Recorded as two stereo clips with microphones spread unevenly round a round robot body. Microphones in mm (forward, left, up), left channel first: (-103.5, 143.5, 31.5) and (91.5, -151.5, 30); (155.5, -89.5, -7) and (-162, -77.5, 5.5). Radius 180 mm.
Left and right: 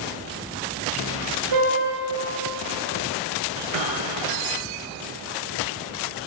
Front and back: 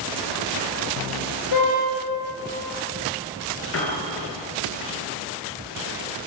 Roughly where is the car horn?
Ahead.